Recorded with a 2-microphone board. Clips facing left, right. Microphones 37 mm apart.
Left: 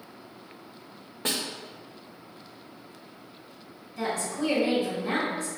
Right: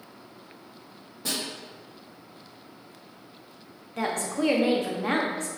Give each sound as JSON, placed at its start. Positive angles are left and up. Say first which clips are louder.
{"t": 1.2, "sound": "a snare drum", "louder": "left 2 dB", "side_deg": 50, "distance_m": 0.7}
{"t": 4.0, "sound": "a woman speaking", "louder": "right 2 dB", "side_deg": -70, "distance_m": 0.7}